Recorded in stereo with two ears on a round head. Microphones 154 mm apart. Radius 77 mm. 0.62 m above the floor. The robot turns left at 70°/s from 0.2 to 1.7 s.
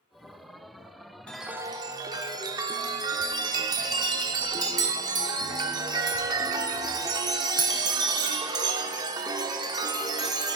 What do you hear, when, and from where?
1.3 s a chime: 5° left, 0.6 m; by 10.6 s 25° right, 0.6 m